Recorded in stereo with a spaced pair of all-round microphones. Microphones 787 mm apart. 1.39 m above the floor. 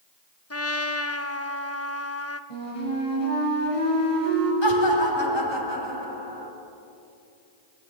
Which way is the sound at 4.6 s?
30° left (ahead or behind).